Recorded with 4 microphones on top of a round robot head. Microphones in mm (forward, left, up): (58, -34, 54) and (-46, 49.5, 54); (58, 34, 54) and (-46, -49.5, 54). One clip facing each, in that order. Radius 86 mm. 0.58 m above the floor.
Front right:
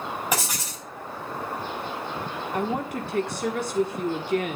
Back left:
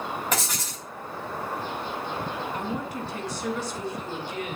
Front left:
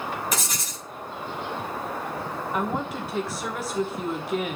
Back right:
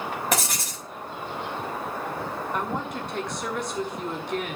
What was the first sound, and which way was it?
Writing, 120° right.